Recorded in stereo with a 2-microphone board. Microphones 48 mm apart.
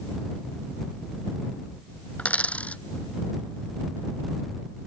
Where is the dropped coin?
25° left (ahead or behind).